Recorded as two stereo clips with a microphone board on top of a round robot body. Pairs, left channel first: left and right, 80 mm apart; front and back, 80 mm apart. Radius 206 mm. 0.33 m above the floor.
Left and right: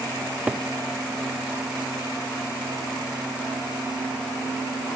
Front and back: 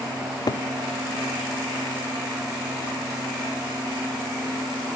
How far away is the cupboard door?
About 0.7 m.